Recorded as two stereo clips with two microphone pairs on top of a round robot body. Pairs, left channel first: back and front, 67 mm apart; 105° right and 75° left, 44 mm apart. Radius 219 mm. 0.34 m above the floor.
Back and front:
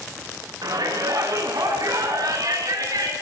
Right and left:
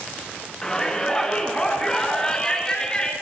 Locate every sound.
0.6 s a shout: 25° right, 6.5 m; by 3.1 s 30° right, 7.5 m